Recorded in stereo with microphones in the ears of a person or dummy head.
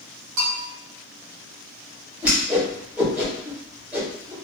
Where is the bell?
60° right (ahead or behind), 1.5 m.